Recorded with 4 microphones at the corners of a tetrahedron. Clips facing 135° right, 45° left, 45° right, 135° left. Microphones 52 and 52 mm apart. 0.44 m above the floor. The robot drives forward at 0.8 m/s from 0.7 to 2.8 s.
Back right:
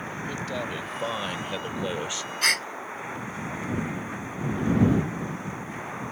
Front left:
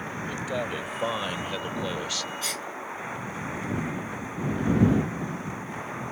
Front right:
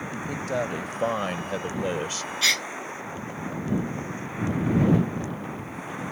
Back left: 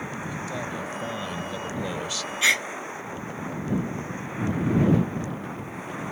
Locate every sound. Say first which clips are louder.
0.1 s a man speaking: front left 2 dB, front right 3 dB; 30° right; by 2.3 s 85° right
2.4 s a gasp: back right 9 dB, back left 3 dB; 155° right; by 2.7 s 160° right